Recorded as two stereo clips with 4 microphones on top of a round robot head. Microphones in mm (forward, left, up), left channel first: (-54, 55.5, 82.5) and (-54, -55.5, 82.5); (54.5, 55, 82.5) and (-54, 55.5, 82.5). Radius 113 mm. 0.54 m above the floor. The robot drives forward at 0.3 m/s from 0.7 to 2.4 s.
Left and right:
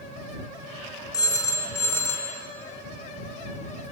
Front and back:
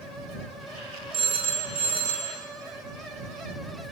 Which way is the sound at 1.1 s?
145° left.